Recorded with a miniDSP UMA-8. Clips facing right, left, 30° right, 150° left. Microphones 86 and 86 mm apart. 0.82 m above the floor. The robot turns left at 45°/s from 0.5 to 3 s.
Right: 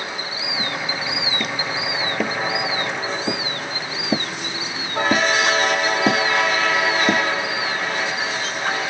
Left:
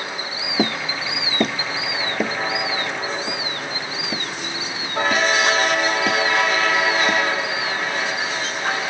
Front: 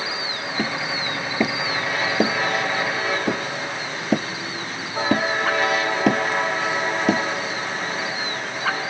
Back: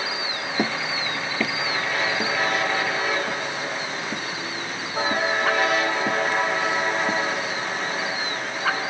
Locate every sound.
0.6 s hammering: 80° left; by 7.2 s 30° right